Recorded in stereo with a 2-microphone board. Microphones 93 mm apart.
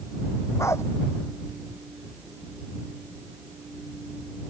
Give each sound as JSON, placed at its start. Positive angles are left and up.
{"t": 0.6, "sound": "a dog barking", "side_deg": 30}